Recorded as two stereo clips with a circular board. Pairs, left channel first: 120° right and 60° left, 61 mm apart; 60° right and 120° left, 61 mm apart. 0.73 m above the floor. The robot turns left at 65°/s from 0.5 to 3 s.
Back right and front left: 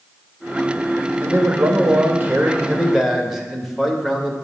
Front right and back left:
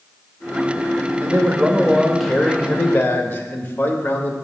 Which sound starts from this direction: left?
A man speaking, at 1.2 s.